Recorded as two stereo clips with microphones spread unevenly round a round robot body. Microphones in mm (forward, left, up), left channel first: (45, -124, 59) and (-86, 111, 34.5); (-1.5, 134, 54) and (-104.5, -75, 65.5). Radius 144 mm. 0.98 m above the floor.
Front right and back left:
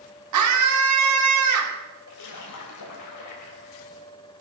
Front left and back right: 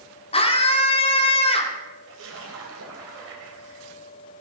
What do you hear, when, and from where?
0.3 s a scream: 125° left, 2.5 m
2.1 s a splash: 75° right, 3 m